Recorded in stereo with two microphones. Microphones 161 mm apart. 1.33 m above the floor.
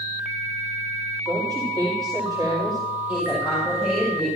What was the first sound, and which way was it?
A woman speaking, 25° right (ahead or behind).